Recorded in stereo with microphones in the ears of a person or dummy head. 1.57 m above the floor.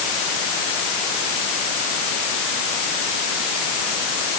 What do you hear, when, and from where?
Only background noise.